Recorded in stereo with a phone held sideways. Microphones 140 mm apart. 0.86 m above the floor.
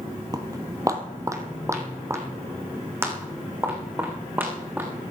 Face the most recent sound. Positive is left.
turn(degrees=-15)  # may be behind; listen again after turning